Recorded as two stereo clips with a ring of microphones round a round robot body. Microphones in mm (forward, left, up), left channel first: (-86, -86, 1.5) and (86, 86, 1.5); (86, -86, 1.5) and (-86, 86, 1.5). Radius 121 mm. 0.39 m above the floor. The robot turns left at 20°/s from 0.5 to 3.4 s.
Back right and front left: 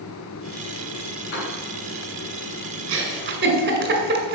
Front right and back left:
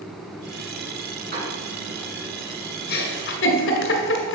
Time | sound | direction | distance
1.3 | a piano | 175° right | 4.5 m
2.9 | a giggle | 5° left | 1.9 m